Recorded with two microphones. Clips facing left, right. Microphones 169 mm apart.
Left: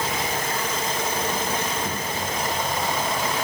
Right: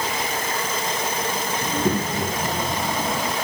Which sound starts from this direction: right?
A child speaking, at 1.6 s.